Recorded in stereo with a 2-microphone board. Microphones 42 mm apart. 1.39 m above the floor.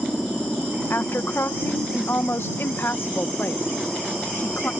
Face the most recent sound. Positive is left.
turn(degrees=75)  # may be behind; listen again after turning